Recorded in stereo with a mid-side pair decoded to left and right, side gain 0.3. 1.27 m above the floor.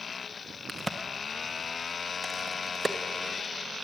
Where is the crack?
30° right, 0.8 m.